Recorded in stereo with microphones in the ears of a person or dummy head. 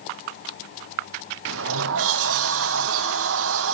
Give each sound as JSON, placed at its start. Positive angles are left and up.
{"t": 1.4, "sound": "a sliding door", "side_deg": -75, "distance_m": 1.3}